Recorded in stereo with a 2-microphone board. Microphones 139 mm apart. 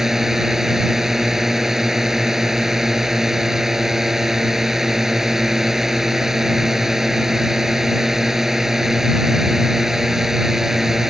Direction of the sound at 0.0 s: 5° right (ahead or behind).